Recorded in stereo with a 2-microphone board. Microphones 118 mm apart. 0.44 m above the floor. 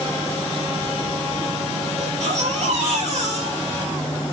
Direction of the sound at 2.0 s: 75° right (ahead or behind).